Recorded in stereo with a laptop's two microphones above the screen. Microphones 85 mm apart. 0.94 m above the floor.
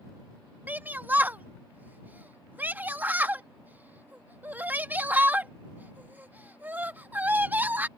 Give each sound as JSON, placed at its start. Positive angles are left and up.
{"t": 0.7, "sound": "a shout", "side_deg": -20}